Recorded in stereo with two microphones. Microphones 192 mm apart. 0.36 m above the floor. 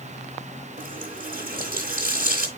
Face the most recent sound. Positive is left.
turn(degrees=-50)  # may be behind; listen again after turning